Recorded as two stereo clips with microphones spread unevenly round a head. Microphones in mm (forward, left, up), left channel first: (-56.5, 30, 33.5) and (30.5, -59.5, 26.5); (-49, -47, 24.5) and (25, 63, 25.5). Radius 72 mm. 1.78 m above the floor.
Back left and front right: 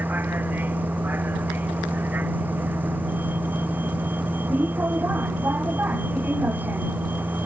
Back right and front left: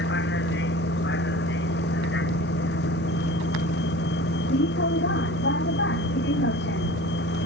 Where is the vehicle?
125° right.